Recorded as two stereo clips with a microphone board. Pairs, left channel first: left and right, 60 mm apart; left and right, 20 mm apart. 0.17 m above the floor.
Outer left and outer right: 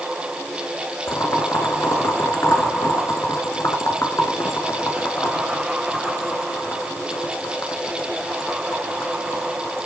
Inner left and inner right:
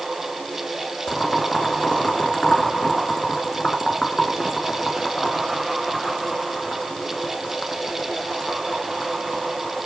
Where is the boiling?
60° left (ahead or behind), 2.5 m.